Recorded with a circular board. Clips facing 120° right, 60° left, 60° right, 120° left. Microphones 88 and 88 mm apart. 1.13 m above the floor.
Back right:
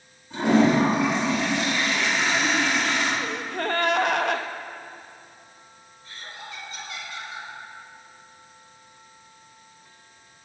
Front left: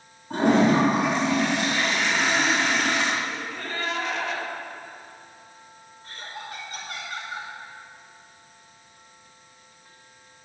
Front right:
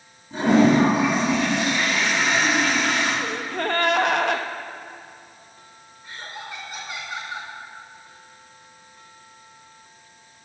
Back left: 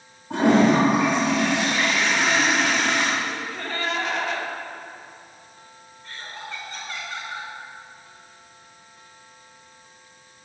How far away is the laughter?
About 4 m.